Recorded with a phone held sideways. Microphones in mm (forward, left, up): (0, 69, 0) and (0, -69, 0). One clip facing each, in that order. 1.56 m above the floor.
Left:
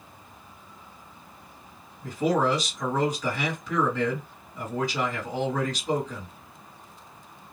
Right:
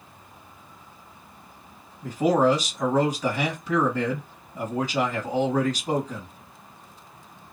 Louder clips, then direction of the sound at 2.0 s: Right 4 dB; 40° right (ahead or behind).